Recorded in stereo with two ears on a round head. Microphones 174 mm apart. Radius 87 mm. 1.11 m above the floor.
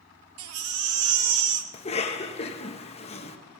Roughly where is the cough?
Left.